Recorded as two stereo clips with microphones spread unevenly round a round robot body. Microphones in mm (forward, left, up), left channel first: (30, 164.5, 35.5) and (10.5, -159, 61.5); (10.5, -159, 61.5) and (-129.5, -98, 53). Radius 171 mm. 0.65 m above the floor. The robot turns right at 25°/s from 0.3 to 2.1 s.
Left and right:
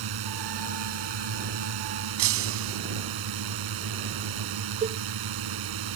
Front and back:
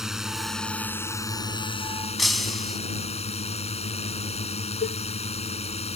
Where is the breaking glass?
115° right.